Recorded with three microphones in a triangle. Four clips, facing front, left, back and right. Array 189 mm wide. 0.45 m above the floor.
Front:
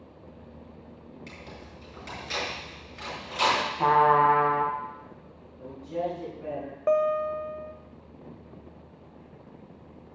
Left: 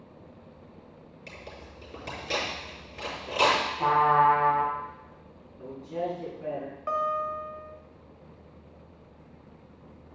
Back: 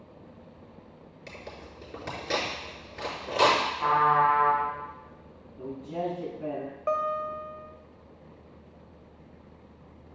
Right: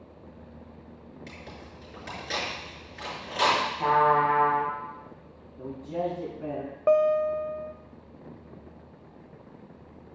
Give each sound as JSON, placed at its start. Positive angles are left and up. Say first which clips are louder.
{"t": 1.3, "sound": "tearing paper", "louder": "left 2 dB, back 1 dB", "azimuth_deg": 160, "distance_m": 5.5}
{"t": 3.8, "sound": "a trumpet", "louder": "left 1 dB, front 4 dB", "azimuth_deg": 5, "distance_m": 3.0}
{"t": 5.6, "sound": "a man speaking", "louder": "right 2 dB, front 1 dB", "azimuth_deg": -120, "distance_m": 4.0}
{"t": 6.9, "sound": "a guitar", "louder": "right 8 dB, front 5 dB", "azimuth_deg": -70, "distance_m": 0.7}